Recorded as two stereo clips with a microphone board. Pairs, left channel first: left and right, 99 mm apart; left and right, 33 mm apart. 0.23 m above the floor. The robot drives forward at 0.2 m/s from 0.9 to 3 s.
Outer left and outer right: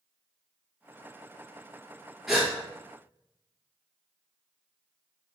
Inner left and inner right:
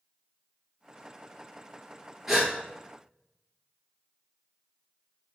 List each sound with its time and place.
2.3 s a gasp: 5° right (ahead or behind), 1.3 m